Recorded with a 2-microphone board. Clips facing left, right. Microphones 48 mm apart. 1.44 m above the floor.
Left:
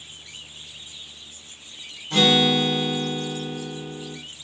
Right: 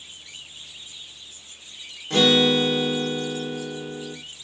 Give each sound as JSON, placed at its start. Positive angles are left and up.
{"t": 2.1, "sound": "a guitar", "side_deg": -70, "distance_m": 2.0}